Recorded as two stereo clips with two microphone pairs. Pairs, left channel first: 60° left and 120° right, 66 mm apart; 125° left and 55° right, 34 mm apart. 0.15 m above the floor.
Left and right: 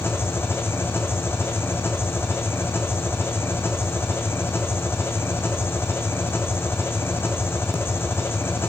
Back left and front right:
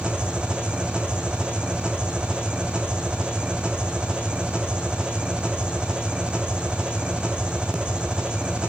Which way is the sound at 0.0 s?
5° left.